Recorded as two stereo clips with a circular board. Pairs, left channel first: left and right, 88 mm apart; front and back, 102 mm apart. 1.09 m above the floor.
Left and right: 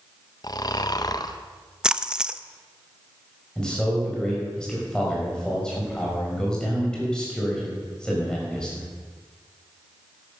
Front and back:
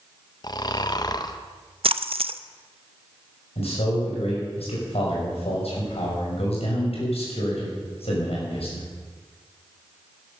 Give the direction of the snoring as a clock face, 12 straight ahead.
10 o'clock.